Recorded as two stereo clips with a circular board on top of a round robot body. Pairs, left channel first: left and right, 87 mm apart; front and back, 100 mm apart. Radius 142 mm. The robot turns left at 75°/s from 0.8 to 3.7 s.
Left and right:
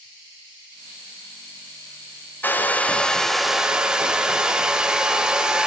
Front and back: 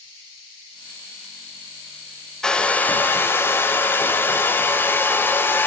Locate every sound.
2.4 s a hair dryer: 75° left, 1.1 m; by 5.7 s 20° right, 1.1 m